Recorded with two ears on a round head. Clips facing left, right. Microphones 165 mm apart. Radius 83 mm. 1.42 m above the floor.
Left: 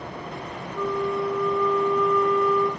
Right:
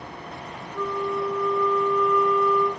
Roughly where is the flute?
Centre.